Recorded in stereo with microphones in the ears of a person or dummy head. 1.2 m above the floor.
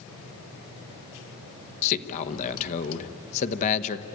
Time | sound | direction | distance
1.8 | a man speaking | 40° left (ahead or behind) | 1.0 m